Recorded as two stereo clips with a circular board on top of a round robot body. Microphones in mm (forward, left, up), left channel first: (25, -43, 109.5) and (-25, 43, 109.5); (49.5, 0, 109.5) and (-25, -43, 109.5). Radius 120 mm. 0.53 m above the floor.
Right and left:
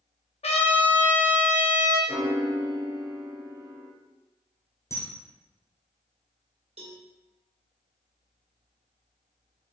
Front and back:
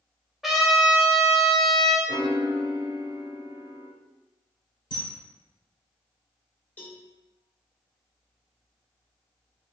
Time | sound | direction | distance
0.4 | a trumpet | 65° right | 1.9 m
2.1 | a piano | 170° left | 1.3 m
4.9 | a camera shutter | straight ahead | 2 m
6.8 | a cowbell | 100° left | 1.9 m